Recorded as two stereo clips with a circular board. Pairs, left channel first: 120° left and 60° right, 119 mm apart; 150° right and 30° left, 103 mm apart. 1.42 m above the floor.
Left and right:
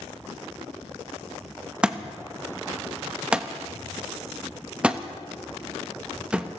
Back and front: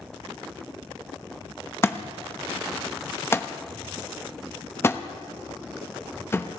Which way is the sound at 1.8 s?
130° right.